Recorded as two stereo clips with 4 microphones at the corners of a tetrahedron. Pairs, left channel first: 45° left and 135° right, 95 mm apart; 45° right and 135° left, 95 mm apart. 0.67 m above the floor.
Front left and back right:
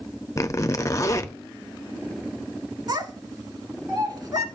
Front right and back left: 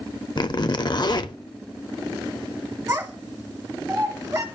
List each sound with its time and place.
0.4 s a zipper: 10° right, 0.5 m
2.9 s a child speaking: 175° right, 1.9 m